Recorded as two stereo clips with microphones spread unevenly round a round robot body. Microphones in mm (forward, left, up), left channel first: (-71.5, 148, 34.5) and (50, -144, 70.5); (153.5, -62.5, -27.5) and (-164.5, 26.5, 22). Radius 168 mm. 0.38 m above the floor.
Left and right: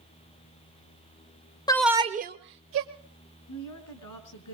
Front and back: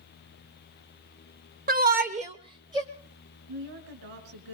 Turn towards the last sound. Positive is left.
turn(degrees=145)